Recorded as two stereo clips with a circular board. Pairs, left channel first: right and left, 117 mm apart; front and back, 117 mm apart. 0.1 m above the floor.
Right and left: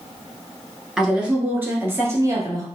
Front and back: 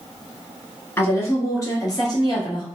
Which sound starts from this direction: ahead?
A woman speaking, at 1.0 s.